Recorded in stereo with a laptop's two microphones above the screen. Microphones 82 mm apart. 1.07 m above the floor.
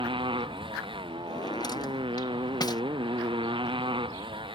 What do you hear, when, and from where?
0.0 s a motorcycle: 85° right
1.3 s a drawer: 55° left (ahead or behind)